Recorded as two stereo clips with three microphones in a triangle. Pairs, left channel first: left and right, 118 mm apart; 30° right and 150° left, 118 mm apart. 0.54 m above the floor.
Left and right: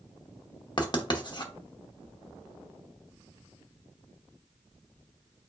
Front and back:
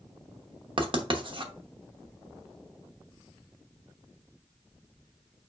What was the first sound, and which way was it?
Writing, 125° left.